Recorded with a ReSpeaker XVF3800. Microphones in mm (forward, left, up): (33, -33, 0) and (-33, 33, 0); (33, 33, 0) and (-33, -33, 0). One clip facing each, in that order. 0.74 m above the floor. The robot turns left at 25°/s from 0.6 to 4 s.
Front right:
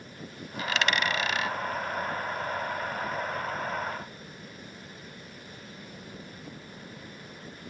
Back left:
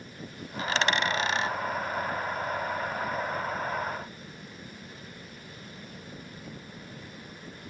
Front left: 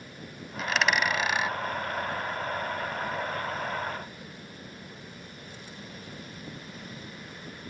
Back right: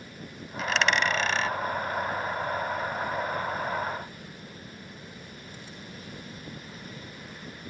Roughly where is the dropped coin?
Behind left.